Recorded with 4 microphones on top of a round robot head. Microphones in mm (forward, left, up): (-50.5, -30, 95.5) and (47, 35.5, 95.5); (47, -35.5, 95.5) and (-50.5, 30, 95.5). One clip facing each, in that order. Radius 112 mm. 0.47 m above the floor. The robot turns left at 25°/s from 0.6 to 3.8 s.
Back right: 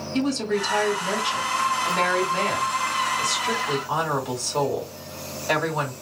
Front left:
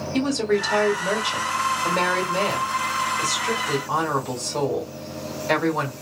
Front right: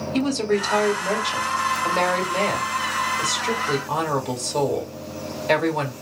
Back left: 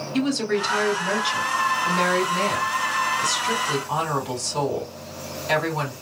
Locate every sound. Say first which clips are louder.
0.1 s a woman speaking: front left 2 dB, front right 1 dB; 15° left, 1.7 m; by 5.9 s 65° right, 1.7 m